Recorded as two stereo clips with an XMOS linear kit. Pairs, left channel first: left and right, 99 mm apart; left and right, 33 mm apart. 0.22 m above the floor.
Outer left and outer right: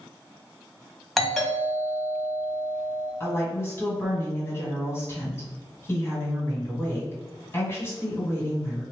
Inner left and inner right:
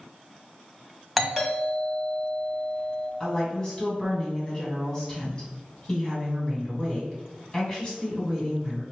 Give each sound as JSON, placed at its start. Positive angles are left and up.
{"t": 1.2, "sound": "a doorbell", "side_deg": 5, "distance_m": 1.5}
{"t": 3.2, "sound": "a woman speaking", "side_deg": 25, "distance_m": 2.0}